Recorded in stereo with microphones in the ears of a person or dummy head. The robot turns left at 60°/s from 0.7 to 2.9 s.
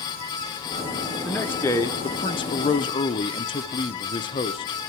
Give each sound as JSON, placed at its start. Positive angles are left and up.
{"t": 1.2, "sound": "a man speaking", "side_deg": 5, "distance_m": 0.5}